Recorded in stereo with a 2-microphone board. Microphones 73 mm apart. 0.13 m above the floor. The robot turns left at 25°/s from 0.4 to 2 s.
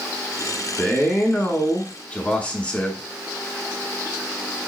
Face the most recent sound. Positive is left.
turn(degrees=20)  # may be behind; listen again after turning